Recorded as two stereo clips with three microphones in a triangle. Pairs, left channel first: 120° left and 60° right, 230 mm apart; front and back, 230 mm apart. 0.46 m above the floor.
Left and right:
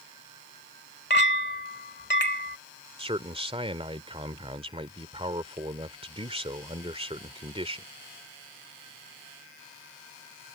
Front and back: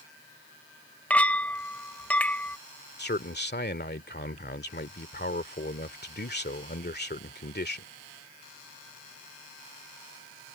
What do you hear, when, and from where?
1.1 s a clink: 85° left
3.0 s a man speaking: 5° right